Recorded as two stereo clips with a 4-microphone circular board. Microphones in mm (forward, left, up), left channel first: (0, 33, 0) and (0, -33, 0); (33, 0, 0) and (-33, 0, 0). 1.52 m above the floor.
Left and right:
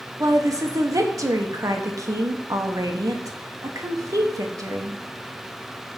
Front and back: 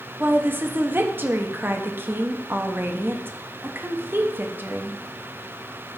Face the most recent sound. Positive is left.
turn(degrees=-125)